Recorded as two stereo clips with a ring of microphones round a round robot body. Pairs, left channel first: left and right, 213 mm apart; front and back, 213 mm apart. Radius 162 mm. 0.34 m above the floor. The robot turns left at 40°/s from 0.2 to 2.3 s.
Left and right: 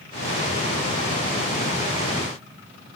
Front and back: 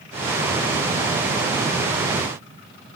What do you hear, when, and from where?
Only background noise.